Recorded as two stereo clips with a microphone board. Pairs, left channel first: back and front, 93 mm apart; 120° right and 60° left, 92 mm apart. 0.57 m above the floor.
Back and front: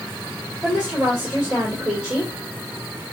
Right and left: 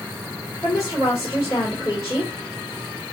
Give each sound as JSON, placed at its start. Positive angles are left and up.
{"t": 0.6, "sound": "a woman speaking", "azimuth_deg": -75, "distance_m": 2.5}